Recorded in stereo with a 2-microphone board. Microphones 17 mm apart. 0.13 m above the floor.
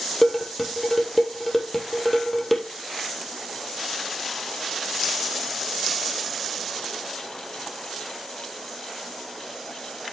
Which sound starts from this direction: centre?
Dishes clattering, at 0.2 s.